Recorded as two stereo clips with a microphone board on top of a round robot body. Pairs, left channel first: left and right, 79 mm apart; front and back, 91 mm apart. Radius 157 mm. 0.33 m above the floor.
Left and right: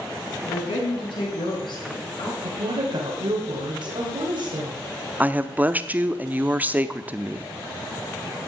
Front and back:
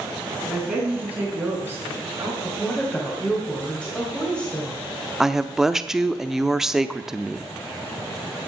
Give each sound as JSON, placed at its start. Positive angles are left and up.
{"t": 0.5, "sound": "a woman speaking", "azimuth_deg": 95, "distance_m": 4.0}
{"t": 2.4, "sound": "a woman speaking", "azimuth_deg": -80, "distance_m": 3.0}
{"t": 5.2, "sound": "a woman speaking", "azimuth_deg": -100, "distance_m": 0.9}